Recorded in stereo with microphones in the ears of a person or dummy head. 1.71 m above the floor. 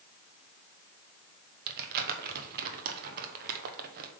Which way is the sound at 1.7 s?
50° right (ahead or behind).